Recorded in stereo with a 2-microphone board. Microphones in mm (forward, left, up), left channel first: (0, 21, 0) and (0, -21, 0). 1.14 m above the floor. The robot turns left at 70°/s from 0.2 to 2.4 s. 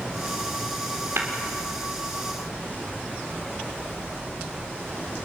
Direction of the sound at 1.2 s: 70° right (ahead or behind).